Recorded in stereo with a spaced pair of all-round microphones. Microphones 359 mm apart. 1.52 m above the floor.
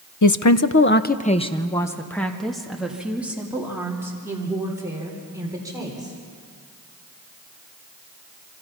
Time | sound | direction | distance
0.2 | a woman speaking | 55° left (ahead or behind) | 0.7 m